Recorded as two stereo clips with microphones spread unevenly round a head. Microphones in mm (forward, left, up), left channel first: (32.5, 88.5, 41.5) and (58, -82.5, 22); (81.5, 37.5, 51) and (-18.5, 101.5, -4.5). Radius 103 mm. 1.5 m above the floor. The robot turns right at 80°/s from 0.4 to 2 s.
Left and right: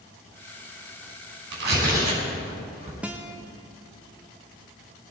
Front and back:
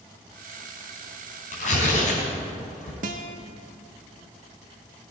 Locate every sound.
1.5 s tearing paper: 65° right, 5.5 m; by 2.9 s 30° right, 5.5 m
3.0 s a guitar: 170° right, 0.7 m